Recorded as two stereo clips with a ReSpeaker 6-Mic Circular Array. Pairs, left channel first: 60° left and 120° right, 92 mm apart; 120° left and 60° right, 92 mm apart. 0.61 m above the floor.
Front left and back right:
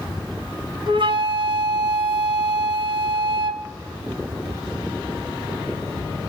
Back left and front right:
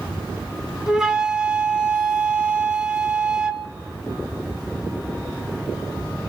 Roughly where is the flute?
Behind right.